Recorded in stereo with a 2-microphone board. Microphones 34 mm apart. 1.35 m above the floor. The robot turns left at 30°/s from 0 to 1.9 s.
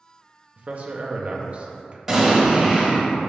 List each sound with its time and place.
0.6 s a man speaking: 85° right, 0.5 m; by 2.0 s 125° right, 0.5 m
2.1 s an explosion: 5° right (ahead or behind), 1.4 m